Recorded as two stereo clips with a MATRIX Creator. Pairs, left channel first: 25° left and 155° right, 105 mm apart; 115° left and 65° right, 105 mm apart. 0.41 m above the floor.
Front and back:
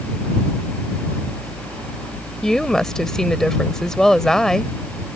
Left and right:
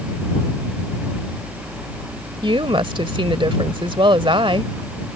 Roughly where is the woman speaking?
Ahead right.